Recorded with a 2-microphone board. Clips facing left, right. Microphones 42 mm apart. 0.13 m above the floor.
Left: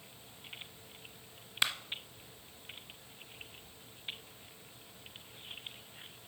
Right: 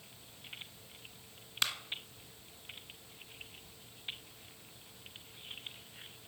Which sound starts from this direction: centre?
A clap, at 1.6 s.